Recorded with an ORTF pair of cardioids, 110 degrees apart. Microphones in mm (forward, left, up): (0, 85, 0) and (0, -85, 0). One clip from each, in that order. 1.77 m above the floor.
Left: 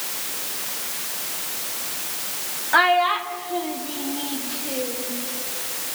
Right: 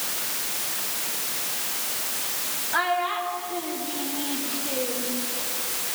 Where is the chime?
No chime in this recording.